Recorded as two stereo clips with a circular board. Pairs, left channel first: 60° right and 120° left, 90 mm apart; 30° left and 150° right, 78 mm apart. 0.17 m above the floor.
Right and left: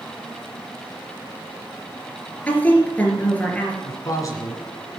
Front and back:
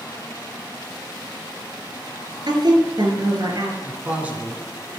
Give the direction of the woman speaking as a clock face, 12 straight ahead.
4 o'clock.